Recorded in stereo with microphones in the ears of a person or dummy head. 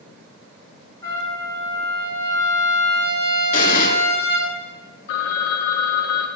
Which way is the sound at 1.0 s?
15° left (ahead or behind).